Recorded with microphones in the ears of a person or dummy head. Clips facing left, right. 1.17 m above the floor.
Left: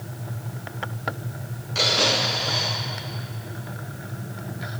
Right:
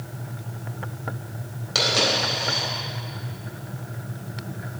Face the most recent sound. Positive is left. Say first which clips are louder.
# even
turn(degrees=-75)  # may be behind; listen again after turning